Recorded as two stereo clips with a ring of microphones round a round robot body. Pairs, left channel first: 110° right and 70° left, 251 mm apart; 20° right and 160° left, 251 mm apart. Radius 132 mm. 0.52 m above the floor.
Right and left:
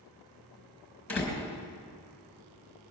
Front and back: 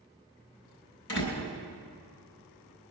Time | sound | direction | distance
1.1 | a door slam | 30° right | 4 m